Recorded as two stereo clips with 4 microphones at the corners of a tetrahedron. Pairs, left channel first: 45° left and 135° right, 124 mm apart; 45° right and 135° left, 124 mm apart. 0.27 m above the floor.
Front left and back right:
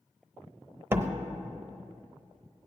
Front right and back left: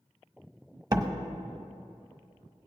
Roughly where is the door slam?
Behind.